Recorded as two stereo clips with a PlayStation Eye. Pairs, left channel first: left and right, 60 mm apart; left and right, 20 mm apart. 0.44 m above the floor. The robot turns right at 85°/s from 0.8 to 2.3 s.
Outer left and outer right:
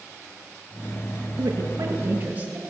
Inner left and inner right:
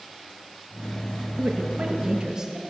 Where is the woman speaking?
105° right, 7 m; by 2.6 s 30° right, 7 m.